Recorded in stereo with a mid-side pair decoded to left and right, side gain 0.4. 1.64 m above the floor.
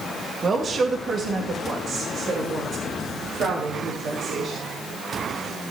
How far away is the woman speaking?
About 2.5 m.